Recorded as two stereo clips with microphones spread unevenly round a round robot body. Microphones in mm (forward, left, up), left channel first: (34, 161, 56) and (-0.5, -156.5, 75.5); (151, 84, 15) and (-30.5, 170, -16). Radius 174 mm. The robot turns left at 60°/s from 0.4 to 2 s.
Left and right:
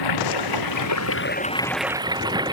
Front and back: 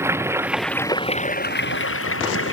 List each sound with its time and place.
0.0 s running water: 75° left; by 2.5 s 20° right